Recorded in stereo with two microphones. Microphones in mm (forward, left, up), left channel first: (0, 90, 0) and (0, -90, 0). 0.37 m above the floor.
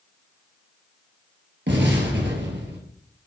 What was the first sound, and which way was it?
An explosion, 85° right.